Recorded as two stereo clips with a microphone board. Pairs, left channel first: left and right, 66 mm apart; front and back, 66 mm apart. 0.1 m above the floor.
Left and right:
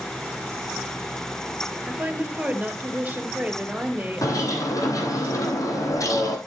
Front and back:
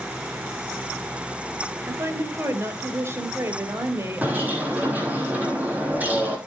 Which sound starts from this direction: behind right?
A woman speaking, at 1.9 s.